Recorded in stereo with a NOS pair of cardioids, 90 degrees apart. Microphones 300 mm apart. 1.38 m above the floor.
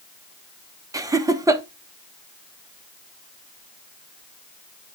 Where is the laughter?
10° right, 1.4 m.